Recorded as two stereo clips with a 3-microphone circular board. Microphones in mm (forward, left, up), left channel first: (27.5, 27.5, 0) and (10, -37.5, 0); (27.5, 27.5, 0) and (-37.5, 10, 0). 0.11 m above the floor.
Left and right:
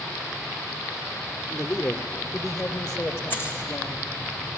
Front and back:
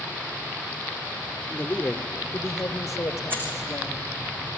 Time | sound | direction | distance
1.5 | a man speaking | 70° left | 1.7 m
3.3 | keys jangling | 135° left | 5 m